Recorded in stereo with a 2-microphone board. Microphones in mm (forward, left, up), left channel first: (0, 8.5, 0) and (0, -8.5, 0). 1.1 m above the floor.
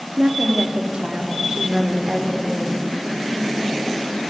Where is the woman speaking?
65° right (ahead or behind), 2.5 m; by 2.8 s 40° right (ahead or behind), 4 m.